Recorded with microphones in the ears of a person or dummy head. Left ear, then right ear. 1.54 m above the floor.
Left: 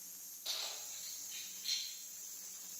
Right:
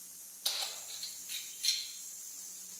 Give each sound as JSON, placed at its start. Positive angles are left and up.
{"t": 0.5, "sound": "keys jangling", "side_deg": -60, "distance_m": 1.6}